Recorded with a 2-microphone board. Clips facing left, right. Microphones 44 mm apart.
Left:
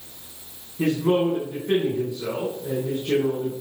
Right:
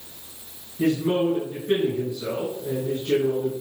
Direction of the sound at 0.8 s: 55° left (ahead or behind).